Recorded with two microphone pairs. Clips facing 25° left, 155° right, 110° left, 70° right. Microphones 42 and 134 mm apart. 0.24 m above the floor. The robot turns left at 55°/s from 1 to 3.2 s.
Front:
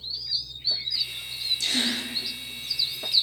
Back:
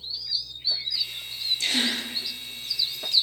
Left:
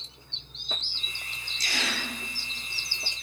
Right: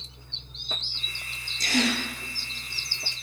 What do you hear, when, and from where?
1.6 s a gasp: 110° right, 5 m; by 2.0 s 135° right, 5 m